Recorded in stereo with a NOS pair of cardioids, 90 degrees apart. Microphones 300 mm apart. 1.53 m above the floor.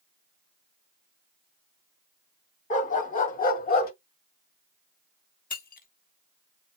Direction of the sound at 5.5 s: 30° left.